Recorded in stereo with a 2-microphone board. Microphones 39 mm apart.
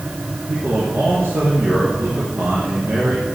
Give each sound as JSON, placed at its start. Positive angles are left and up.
{"t": 0.5, "sound": "a man speaking", "side_deg": -70, "distance_m": 6.0}